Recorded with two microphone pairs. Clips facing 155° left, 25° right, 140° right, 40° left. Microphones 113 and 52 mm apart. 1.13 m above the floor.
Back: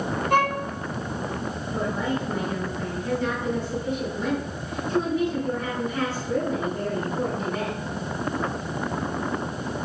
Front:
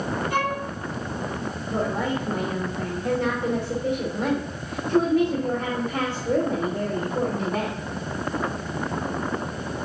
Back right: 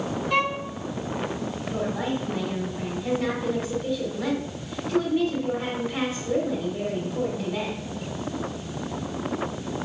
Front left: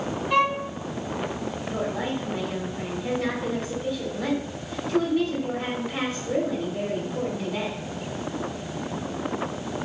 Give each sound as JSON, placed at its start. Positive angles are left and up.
{"t": 0.3, "sound": "a violin", "azimuth_deg": 125, "distance_m": 5.0}
{"t": 1.7, "sound": "a woman speaking", "azimuth_deg": -45, "distance_m": 2.5}